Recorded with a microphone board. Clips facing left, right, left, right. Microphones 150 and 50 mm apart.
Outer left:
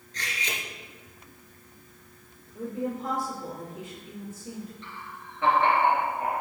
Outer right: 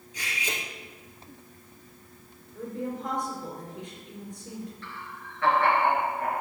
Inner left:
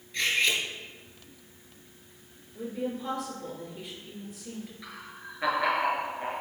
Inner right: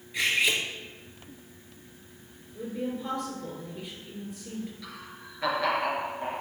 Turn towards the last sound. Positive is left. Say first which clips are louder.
# outer right 1 dB, even
turn(degrees=20)  # may be behind; listen again after turning